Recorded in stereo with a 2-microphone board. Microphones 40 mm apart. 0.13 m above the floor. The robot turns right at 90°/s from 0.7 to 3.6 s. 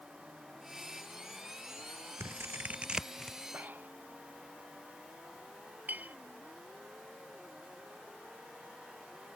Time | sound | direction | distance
2.2 | scissors | 80° right | ?
3.5 | breathing | 40° right (ahead or behind) | ?
5.9 | a clink | 45° right (ahead or behind) | ?